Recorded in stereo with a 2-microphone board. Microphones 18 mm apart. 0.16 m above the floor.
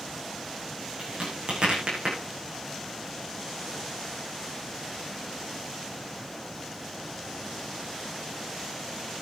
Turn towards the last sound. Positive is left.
turn(degrees=-55)  # may be behind; listen again after turning